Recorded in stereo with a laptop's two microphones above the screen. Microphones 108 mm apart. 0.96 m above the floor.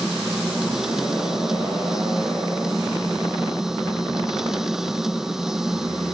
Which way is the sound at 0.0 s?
5° right (ahead or behind).